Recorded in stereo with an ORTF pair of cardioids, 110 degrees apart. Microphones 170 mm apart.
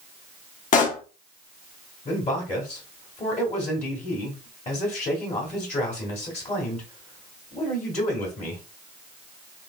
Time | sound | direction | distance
0.7 | a pop | 50° left | 1.0 m
2.0 | a man speaking | 40° left | 1.6 m